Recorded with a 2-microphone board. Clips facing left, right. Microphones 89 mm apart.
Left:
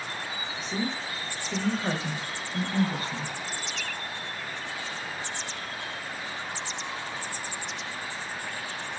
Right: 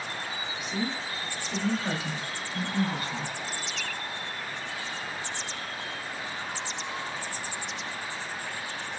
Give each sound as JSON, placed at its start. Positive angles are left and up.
{"t": 0.6, "sound": "a woman speaking", "side_deg": 30, "distance_m": 0.9}